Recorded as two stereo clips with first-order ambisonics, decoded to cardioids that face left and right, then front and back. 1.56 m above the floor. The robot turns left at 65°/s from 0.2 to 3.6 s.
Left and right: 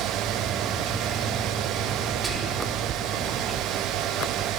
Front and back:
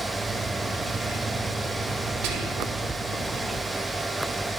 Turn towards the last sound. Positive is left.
turn(degrees=105)